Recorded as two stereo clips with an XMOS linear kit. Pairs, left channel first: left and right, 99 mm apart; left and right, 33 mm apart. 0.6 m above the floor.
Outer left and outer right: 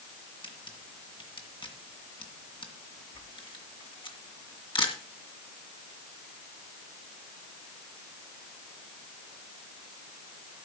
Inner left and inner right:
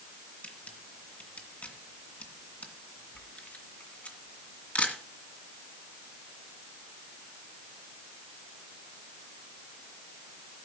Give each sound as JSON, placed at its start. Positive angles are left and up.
{"t": 0.4, "sound": "a camera shutter", "side_deg": 55, "distance_m": 2.0}